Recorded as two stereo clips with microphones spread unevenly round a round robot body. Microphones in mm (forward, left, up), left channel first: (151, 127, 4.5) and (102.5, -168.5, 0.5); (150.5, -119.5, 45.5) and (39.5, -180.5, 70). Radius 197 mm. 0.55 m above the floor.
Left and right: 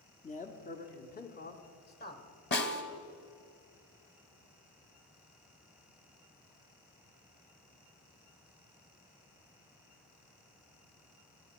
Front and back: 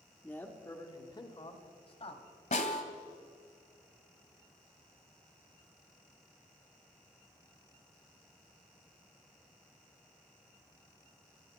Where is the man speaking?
60° left, 1.4 m; by 2.2 s 25° left, 2.5 m.